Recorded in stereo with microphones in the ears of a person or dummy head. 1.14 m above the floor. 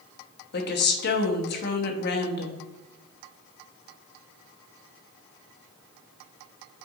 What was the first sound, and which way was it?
A woman speaking, 45° left (ahead or behind).